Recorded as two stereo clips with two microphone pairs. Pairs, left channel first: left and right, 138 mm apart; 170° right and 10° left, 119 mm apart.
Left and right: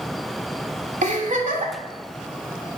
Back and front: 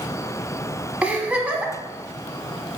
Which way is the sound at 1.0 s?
65° right.